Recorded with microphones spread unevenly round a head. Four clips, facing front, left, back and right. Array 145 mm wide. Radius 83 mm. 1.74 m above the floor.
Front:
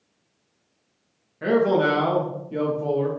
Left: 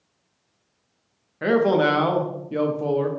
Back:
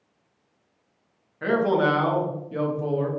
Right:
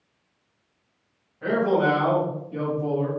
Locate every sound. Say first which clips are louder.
1.4 s a man speaking: left 3 dB, front 2 dB; 95° left, 0.8 m